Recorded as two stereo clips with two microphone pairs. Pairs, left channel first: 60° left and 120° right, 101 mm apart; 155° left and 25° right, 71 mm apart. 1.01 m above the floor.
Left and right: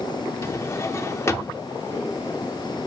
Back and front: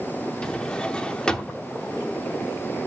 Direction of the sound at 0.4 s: 90° left.